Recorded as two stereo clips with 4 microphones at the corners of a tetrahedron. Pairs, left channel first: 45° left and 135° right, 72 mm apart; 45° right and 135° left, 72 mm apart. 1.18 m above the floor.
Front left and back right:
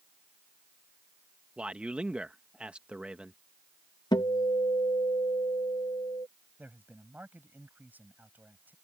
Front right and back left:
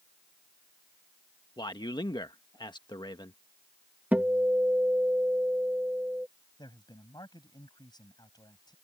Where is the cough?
I don't hear a cough.